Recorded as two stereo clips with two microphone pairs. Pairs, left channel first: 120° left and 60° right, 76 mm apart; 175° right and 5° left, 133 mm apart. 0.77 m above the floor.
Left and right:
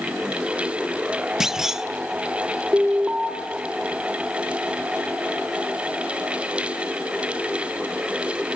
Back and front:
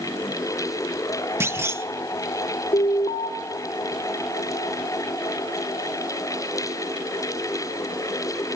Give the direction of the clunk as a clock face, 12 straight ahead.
11 o'clock.